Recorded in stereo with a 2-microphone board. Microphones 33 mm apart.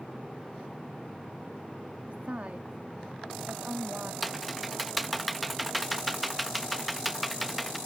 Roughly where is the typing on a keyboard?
Centre.